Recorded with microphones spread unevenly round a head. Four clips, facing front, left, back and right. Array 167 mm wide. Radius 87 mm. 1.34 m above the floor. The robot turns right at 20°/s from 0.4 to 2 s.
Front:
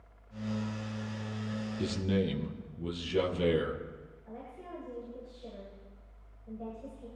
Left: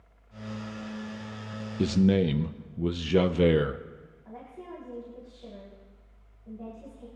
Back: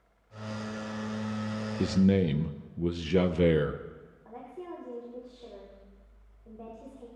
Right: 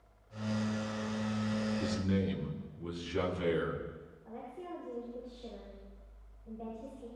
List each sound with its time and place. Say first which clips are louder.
1.8 s a man speaking: left 9 dB, back 7 dB; 120° left, 0.7 m; by 3.8 s 125° left, 0.7 m
4.2 s a woman speaking: left 1 dB, back 4 dB; 165° left, 5 m